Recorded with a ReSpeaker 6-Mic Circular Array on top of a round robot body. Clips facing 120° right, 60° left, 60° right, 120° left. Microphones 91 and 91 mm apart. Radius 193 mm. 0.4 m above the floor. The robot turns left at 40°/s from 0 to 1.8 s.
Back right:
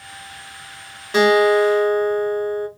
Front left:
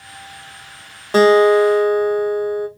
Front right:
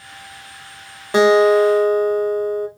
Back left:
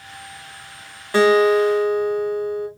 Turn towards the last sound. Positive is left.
turn(degrees=-15)